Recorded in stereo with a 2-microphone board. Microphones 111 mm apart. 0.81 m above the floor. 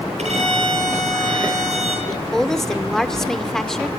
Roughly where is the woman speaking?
Centre.